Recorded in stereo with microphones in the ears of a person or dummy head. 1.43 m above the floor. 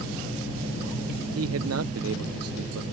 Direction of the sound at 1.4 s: 75° right (ahead or behind).